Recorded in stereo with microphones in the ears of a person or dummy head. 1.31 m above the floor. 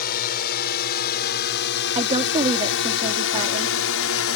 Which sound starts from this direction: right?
A woman speaking, at 1.9 s.